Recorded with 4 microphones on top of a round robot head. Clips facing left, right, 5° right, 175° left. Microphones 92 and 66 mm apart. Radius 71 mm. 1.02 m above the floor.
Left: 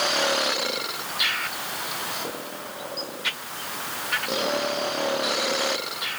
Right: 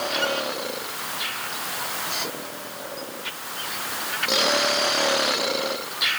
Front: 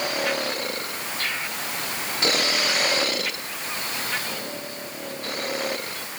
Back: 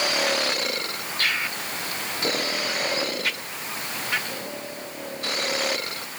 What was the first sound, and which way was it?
Only background noise.